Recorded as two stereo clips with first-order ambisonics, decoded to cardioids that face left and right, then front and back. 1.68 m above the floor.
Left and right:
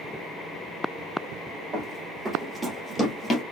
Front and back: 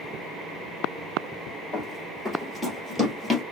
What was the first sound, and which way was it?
Running footsteps, 75° right.